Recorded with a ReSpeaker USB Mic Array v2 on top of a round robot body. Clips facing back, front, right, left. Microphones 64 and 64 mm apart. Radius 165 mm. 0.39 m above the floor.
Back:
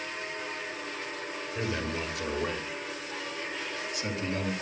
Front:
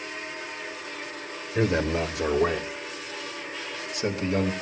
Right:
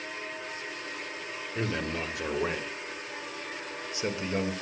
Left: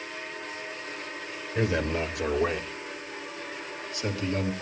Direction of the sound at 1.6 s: 15° left.